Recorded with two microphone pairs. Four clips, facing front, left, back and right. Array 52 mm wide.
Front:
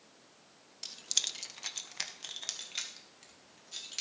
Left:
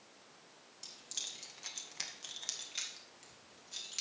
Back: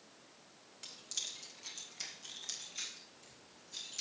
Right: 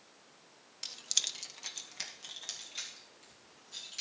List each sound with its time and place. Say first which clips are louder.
0.8 s keys jangling: right 9 dB, front 8 dB; 85° right, 0.6 m; by 4.0 s 20° left, 2.5 m